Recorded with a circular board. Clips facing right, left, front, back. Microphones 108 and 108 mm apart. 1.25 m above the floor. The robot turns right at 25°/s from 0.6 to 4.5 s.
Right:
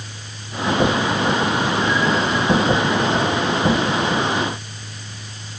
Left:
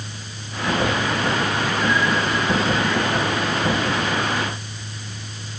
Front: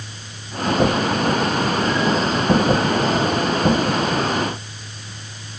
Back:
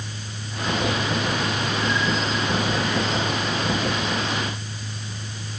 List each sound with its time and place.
Only background noise.